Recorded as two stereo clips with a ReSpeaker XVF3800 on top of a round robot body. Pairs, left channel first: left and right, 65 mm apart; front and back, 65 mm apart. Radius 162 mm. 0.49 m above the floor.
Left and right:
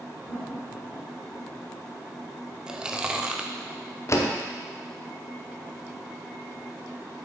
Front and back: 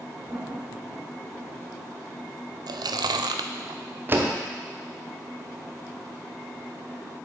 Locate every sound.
0.3 s laughter: 175° right, 2.5 m
2.7 s chewing: 170° right, 0.5 m
4.1 s a door slam: 130° left, 1.2 m